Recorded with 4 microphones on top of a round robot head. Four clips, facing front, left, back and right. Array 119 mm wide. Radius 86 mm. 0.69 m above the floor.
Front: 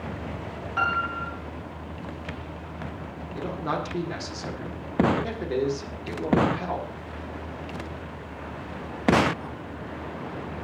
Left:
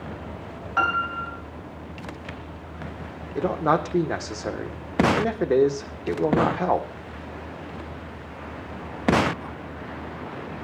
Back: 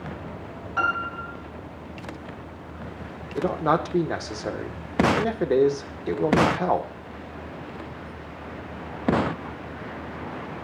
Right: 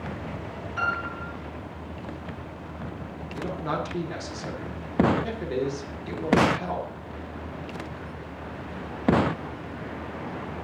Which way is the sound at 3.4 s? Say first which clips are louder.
Left 8 dB, back 7 dB; 130° left.